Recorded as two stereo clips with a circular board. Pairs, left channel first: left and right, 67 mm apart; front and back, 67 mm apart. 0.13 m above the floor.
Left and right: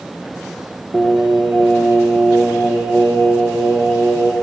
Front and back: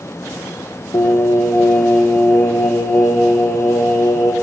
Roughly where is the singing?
Ahead.